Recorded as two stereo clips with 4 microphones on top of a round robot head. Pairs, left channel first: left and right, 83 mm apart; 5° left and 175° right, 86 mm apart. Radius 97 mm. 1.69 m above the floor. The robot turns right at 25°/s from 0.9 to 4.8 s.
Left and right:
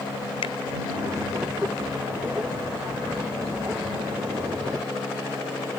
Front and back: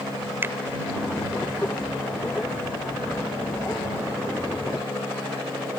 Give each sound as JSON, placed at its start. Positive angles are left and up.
{"t": 0.4, "sound": "a finger snap", "azimuth_deg": 120}